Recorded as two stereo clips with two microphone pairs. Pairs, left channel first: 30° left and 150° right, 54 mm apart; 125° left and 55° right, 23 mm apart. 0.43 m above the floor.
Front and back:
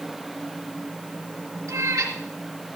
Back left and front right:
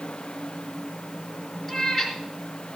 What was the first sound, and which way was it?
A cat meowing, 145° right.